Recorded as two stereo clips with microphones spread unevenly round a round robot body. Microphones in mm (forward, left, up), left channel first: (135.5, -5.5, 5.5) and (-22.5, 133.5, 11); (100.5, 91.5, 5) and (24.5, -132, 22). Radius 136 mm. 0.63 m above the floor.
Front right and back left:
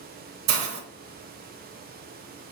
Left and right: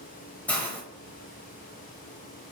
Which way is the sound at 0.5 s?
155° left.